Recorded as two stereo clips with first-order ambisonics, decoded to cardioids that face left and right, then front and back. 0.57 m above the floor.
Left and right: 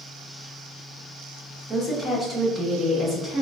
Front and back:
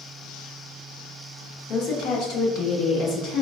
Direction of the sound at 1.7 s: 15° right.